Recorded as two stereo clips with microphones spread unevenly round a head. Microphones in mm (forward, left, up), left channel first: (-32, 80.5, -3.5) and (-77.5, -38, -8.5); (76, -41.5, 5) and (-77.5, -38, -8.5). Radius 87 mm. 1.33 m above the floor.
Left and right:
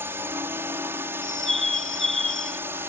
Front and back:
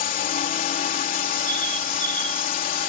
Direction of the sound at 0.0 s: 35° right.